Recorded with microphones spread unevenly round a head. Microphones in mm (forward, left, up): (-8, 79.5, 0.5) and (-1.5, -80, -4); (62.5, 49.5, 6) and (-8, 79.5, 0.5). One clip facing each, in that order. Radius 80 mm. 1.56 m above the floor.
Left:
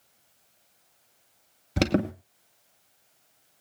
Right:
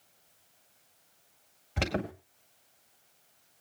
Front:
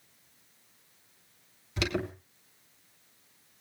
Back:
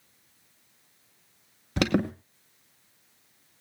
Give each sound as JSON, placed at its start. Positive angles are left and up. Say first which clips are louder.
{"t": 1.8, "sound": "an alarm", "louder": "left 9 dB, back 7 dB", "azimuth_deg": 130, "distance_m": 2.0}